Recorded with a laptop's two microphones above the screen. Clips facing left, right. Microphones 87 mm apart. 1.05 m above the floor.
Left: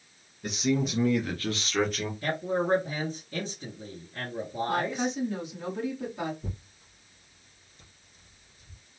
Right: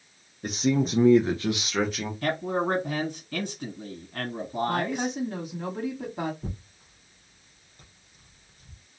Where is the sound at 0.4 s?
40° right (ahead or behind), 0.7 m; by 2.1 s centre (ahead or behind), 1.0 m.